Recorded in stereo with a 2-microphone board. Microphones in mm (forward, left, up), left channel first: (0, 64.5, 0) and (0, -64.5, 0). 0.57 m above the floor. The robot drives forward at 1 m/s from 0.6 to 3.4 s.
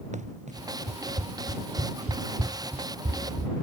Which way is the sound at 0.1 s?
75° right (ahead or behind).